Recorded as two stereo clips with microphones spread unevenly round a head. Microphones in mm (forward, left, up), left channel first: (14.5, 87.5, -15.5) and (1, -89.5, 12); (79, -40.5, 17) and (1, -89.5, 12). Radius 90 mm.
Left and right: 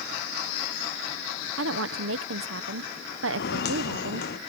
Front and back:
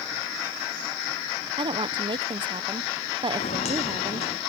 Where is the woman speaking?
120° right.